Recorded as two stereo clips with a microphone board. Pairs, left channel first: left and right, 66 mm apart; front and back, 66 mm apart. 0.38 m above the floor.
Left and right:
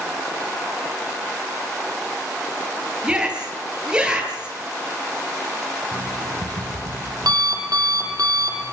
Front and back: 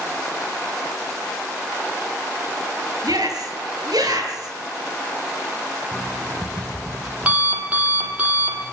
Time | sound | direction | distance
3.0 | a shout | 165° right | 9 m
5.9 | an alarm clock | 110° right | 8 m